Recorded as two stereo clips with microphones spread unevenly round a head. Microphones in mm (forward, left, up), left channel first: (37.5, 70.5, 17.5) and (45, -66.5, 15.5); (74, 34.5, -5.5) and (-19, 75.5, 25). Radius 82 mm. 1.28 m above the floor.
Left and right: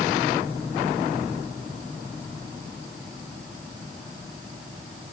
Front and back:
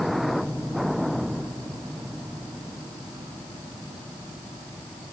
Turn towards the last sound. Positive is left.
No sound to turn to.